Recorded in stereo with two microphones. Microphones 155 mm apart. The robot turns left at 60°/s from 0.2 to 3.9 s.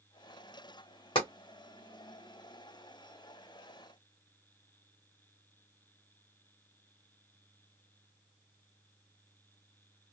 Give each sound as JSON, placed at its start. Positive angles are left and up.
{"t": 1.1, "sound": "tapping", "side_deg": 35, "distance_m": 1.2}